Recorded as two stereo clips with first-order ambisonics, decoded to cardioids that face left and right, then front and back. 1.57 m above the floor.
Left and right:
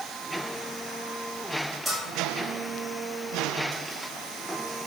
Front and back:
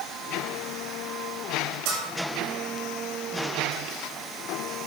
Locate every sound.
1.9 s a bell: 170° right, 8 m